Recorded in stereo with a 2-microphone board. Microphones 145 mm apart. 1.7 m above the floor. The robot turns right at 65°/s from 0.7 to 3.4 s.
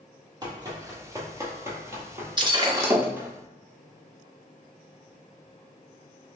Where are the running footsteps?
30° right (ahead or behind), 1.9 m; by 3.3 s 15° right (ahead or behind), 1.9 m.